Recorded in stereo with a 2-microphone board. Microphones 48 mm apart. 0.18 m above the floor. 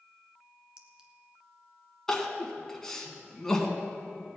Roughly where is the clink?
Centre.